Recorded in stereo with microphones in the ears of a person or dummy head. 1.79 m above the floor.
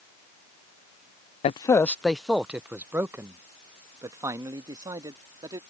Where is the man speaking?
30° left (ahead or behind); by 5.6 s 20° right (ahead or behind).